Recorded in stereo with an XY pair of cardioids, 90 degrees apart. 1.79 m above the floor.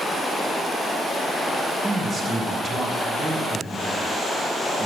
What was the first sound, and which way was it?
A man speaking, 40° right.